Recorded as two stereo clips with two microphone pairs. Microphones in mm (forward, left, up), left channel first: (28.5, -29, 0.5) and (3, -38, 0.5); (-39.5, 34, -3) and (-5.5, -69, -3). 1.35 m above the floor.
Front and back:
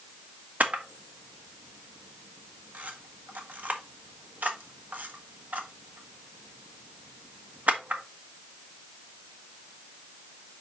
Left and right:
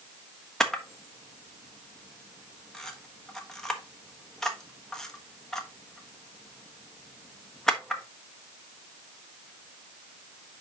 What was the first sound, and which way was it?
A camera shutter, 165° right.